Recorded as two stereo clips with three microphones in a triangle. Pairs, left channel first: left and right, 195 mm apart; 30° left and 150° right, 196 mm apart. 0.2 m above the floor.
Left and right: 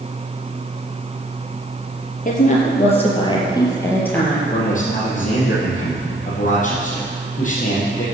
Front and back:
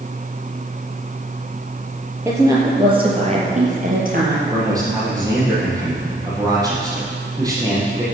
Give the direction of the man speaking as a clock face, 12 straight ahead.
7 o'clock.